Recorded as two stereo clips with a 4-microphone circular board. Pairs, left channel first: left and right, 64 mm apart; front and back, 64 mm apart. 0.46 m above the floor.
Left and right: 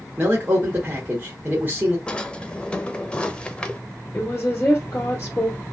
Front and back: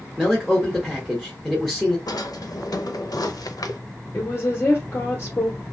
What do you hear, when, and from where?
0.2 s a man speaking: 80° right, 1.0 m
2.1 s a drawer: 15° left, 0.5 m
4.1 s a woman speaking: 40° left, 1.1 m